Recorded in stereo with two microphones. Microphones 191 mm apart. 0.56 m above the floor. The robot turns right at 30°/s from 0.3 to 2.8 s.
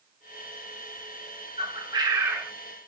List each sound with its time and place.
1.6 s a bird: 35° right (ahead or behind), 1.2 m; by 2.5 s 10° right (ahead or behind), 1.2 m